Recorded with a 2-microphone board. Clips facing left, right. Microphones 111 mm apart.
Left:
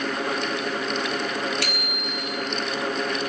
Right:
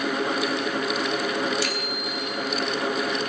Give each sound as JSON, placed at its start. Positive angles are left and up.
{"t": 1.6, "sound": "a bicycle bell", "side_deg": 70, "distance_m": 4.0}